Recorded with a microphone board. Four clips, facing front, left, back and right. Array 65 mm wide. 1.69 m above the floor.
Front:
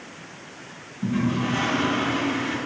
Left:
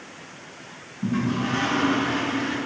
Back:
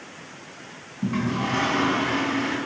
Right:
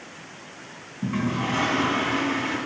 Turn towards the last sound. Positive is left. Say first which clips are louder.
# left 1 dB, front 1 dB
turn(degrees=-145)